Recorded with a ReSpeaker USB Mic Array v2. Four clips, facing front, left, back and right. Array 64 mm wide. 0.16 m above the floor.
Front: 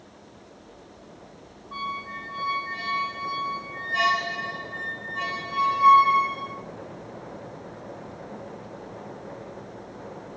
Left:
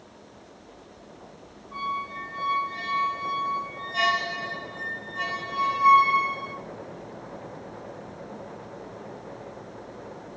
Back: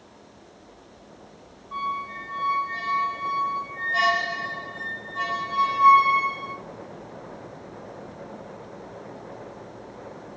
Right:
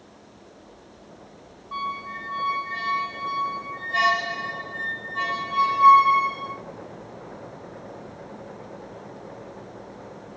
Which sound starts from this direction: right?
A squeak, at 1.7 s.